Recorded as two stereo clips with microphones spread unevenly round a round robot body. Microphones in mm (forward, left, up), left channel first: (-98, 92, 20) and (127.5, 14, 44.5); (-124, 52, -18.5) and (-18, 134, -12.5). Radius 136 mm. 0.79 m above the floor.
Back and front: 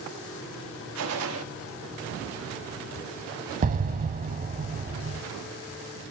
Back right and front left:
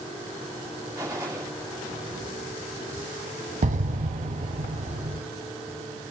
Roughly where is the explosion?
Ahead left.